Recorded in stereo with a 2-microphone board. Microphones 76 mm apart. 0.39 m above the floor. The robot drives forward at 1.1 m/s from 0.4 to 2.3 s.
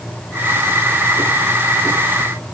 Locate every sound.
Only background noise.